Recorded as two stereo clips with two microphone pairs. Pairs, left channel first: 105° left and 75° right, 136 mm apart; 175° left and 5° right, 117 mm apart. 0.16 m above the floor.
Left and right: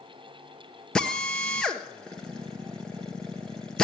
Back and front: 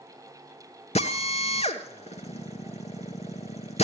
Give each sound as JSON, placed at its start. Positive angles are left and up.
{"t": 0.9, "sound": "a drill", "azimuth_deg": -170, "distance_m": 1.3}